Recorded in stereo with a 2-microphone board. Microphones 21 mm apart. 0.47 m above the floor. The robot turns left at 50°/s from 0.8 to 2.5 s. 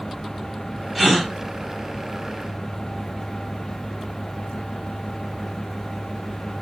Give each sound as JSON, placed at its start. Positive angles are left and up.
{"t": 0.9, "sound": "a gasp", "side_deg": 0, "distance_m": 1.3}